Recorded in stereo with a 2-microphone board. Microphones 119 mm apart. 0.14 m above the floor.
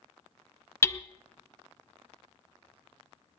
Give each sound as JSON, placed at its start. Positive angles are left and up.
{"t": 0.8, "sound": "hammering", "side_deg": 20, "distance_m": 0.5}